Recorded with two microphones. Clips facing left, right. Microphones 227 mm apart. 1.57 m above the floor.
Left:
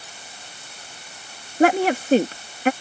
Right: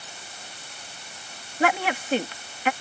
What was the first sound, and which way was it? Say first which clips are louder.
A woman speaking: left 8 dB; 45° left (ahead or behind).